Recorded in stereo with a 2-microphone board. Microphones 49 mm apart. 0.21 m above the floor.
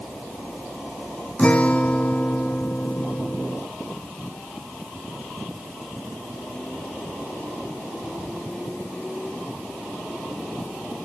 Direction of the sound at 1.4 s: 25° left (ahead or behind).